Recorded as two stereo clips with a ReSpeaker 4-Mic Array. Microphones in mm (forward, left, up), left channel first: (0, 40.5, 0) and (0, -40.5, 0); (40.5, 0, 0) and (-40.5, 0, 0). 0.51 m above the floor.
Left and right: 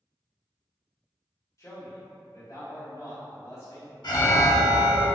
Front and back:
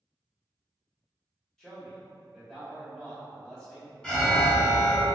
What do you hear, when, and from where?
1.6 s a man speaking: 75° left, 1.3 m
4.0 s an alarm: 75° left, 0.9 m